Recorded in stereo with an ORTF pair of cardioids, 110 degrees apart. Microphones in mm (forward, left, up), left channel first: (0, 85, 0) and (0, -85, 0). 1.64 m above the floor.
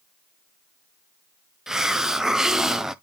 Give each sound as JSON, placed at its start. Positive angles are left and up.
{"t": 1.7, "sound": "a hiss", "azimuth_deg": -5, "distance_m": 0.6}